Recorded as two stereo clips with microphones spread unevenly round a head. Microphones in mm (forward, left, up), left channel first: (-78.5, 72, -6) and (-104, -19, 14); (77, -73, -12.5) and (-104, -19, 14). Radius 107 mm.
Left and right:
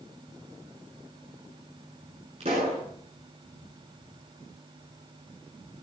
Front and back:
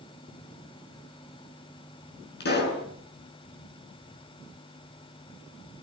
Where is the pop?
50° right, 8.5 m.